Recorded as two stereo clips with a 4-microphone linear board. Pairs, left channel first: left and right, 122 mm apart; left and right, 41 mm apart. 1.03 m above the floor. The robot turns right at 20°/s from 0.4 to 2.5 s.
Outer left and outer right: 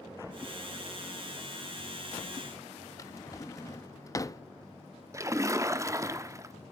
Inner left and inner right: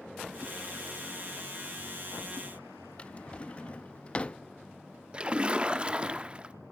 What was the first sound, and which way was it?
A drawer, 30° left (ahead or behind).